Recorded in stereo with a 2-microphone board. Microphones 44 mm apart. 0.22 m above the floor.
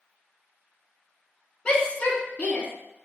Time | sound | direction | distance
1.6 | a shout | 20° left (ahead or behind) | 2.0 m